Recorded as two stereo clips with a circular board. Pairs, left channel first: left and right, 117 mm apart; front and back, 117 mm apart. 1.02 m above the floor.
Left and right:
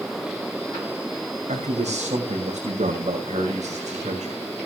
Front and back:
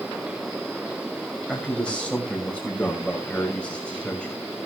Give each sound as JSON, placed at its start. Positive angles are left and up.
{"t": 1.5, "sound": "a man speaking", "azimuth_deg": -80, "distance_m": 5.5}